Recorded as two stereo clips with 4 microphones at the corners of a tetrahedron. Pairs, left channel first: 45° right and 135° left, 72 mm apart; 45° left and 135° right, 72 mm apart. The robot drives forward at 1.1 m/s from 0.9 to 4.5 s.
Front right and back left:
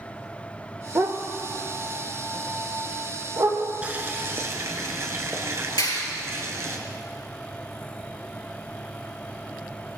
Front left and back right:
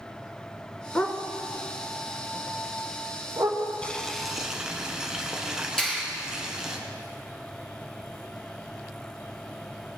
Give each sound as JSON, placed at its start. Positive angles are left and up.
{"t": 0.9, "sound": "a dog barking", "azimuth_deg": 110, "distance_m": 0.7}
{"t": 3.8, "sound": "boiling", "azimuth_deg": 95, "distance_m": 1.1}
{"t": 5.8, "sound": "a clap", "azimuth_deg": -40, "distance_m": 4.0}